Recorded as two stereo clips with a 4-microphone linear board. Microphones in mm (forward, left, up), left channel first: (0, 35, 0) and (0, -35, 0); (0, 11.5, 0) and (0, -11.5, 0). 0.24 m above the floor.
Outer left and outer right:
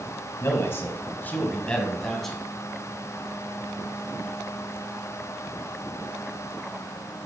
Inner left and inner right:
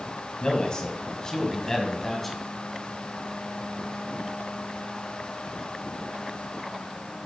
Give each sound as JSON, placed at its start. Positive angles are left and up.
{"t": 0.4, "sound": "a man speaking", "side_deg": 40, "distance_m": 1.5}